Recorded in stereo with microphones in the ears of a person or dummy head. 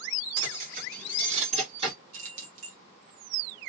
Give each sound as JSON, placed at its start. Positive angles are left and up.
{"t": 0.4, "sound": "keys jangling", "side_deg": -60, "distance_m": 1.6}
{"t": 2.1, "sound": "keys jangling", "side_deg": -50, "distance_m": 1.4}